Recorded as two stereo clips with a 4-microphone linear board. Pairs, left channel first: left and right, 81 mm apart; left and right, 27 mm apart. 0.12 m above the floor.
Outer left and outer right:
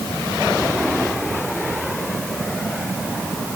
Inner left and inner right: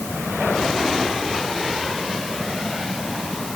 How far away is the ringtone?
I don't hear a ringtone.